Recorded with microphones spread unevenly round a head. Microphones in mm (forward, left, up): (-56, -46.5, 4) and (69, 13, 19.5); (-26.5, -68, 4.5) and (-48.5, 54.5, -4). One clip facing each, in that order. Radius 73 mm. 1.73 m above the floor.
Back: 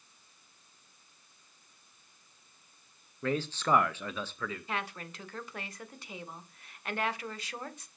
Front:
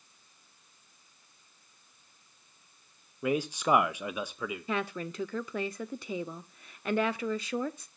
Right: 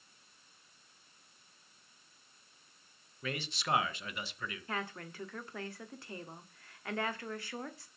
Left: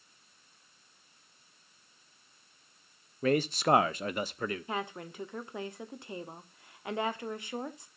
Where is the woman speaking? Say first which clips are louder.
Front 5 dB, left 4 dB; 25° left, 1.0 m.